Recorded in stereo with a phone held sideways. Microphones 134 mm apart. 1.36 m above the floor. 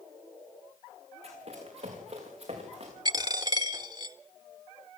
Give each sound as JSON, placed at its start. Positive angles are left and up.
{"t": 1.2, "sound": "running footsteps", "side_deg": -50, "distance_m": 7.0}
{"t": 3.0, "sound": "a dropped coin", "side_deg": -30, "distance_m": 1.2}